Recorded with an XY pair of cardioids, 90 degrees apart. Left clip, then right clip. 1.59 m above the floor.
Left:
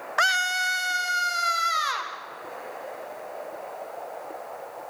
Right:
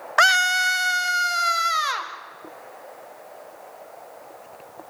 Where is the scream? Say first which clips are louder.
Right 6 dB; 45° right, 0.7 m; by 2.1 s 25° right, 3.5 m.